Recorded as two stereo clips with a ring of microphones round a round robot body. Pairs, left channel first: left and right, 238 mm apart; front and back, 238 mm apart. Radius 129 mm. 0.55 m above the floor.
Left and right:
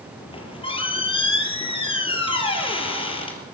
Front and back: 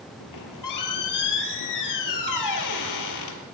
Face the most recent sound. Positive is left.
turn(degrees=20)